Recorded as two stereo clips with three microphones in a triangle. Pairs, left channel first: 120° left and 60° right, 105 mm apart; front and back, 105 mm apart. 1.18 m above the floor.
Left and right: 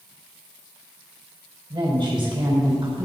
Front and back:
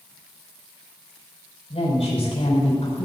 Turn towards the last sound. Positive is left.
turn(degrees=-20)